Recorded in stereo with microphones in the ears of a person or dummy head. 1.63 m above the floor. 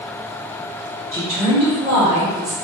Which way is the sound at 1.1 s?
10° left (ahead or behind).